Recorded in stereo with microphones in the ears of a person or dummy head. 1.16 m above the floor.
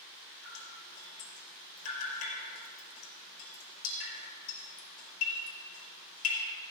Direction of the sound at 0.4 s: 80° left.